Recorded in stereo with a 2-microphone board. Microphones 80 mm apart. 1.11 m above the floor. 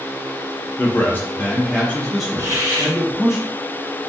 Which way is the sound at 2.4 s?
45° right (ahead or behind).